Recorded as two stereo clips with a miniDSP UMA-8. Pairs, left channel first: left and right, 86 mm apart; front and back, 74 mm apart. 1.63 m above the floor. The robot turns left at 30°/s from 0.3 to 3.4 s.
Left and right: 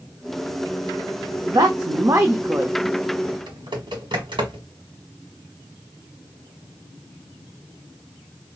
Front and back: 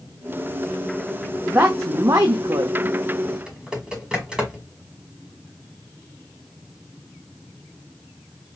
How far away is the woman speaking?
About 0.6 m.